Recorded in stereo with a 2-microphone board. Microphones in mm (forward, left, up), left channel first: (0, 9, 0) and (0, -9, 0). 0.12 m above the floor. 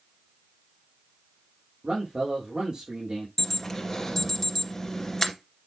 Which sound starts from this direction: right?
A man speaking, at 1.8 s.